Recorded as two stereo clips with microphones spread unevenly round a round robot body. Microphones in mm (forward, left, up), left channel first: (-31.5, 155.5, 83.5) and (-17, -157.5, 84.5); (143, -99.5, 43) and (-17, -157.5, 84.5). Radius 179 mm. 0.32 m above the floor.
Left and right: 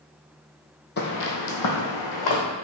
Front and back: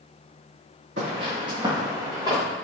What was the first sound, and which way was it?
Footsteps, 150° left.